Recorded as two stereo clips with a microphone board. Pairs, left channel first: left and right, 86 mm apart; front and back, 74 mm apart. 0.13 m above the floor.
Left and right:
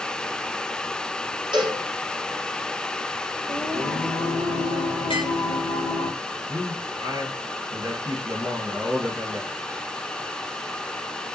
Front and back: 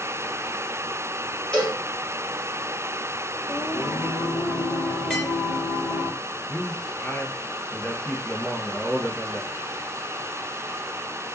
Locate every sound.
1.5 s a cowbell: 75° right, 3.5 m
3.5 s singing: 80° right, 1.9 m
5.1 s tapping: 70° left, 1.9 m
6.5 s a man speaking: 65° right, 2 m